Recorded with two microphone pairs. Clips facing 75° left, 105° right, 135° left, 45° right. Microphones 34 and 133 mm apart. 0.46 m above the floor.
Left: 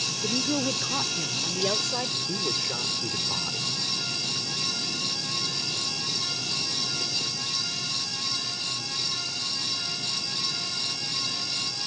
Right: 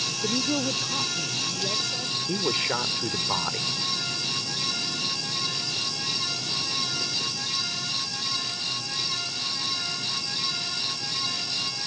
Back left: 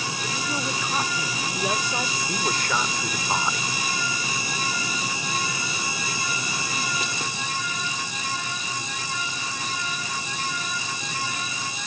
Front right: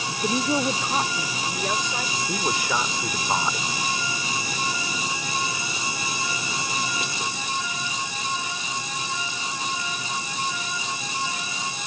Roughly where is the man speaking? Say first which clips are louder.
Right 4 dB, front right 2 dB; behind right.